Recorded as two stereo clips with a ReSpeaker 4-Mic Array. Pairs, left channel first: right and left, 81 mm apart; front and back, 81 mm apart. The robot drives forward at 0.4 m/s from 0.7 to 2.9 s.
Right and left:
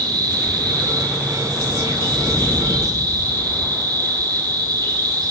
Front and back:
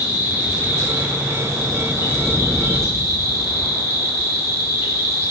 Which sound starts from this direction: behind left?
An insect, at 0.0 s.